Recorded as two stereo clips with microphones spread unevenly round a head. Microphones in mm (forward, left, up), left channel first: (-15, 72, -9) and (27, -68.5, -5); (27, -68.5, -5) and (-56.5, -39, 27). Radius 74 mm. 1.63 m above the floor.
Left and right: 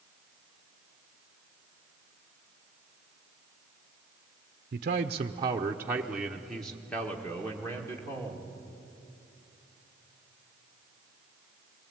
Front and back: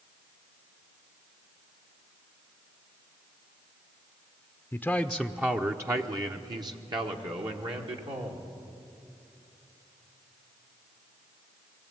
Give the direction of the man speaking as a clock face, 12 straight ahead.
3 o'clock.